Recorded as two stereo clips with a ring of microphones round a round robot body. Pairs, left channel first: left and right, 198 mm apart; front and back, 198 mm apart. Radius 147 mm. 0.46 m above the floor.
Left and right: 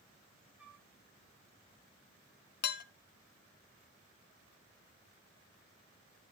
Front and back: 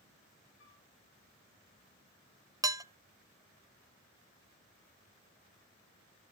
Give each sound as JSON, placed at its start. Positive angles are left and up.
{"t": 0.6, "sound": "a flute", "azimuth_deg": -5, "distance_m": 4.0}
{"t": 2.6, "sound": "dishes clattering", "azimuth_deg": 110, "distance_m": 0.6}